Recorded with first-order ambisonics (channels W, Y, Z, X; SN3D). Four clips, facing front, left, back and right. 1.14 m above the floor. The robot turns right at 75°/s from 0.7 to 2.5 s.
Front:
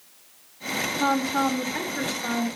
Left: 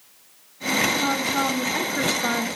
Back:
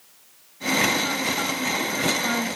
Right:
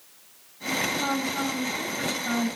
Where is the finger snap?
I don't hear a finger snap.